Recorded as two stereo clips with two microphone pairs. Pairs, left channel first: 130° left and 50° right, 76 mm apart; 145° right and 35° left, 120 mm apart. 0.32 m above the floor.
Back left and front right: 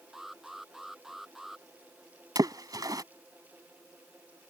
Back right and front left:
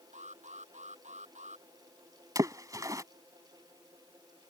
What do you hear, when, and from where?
0.1 s an alarm: 40° left
2.4 s a splash: 25° right